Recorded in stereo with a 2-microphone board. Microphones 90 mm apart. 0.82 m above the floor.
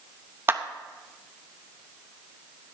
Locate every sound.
0.5 s a clap: 30° right (ahead or behind), 0.8 m